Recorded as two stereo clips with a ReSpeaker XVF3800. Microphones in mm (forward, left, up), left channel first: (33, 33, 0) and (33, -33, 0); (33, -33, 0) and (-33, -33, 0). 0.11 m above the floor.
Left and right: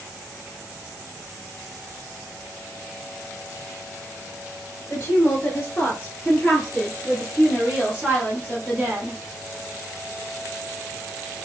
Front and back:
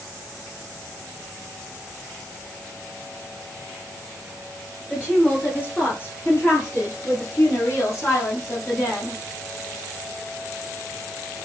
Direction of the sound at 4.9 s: 65° left.